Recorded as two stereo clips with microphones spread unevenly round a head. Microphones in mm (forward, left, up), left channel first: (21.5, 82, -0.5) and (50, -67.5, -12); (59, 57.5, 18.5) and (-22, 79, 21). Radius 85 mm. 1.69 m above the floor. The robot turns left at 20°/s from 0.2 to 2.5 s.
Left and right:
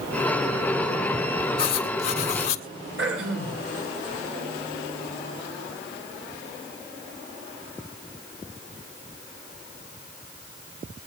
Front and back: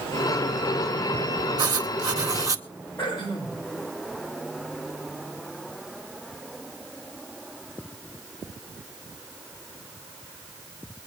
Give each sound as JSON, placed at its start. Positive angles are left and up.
{"t": 1.6, "sound": "writing", "azimuth_deg": 145, "distance_m": 1.9}
{"t": 3.0, "sound": "throat clearing", "azimuth_deg": -95, "distance_m": 6.0}